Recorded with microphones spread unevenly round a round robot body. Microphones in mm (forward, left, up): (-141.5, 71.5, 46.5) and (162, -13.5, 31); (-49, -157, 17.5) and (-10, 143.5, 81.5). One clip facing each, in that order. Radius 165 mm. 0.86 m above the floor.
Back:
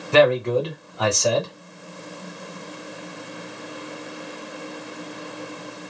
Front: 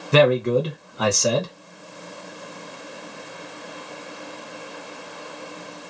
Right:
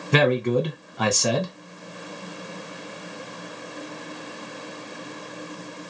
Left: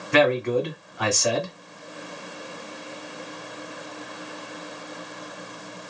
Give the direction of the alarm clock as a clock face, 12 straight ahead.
No alarm clock in this recording.